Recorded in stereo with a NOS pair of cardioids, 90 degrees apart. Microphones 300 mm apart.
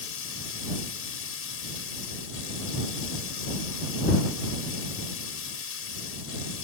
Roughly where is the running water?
Ahead left.